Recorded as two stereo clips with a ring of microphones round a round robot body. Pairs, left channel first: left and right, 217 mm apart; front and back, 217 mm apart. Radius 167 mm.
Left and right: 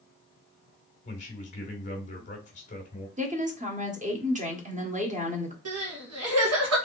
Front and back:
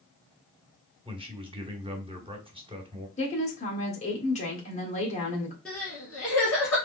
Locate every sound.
1.1 s a man speaking: 125° left, 1.7 m
3.2 s a woman speaking: 45° right, 1.5 m
5.7 s crying: 85° right, 1.5 m